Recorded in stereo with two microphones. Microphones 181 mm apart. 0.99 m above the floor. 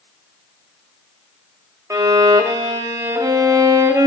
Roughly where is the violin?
Centre.